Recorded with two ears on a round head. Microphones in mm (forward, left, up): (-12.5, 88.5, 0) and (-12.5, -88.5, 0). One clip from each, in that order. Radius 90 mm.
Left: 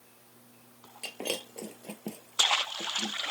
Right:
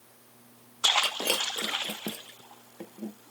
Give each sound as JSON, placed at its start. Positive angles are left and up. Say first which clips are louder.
{"t": 1.0, "sound": "breaking glass", "louder": "right 8 dB", "side_deg": -15}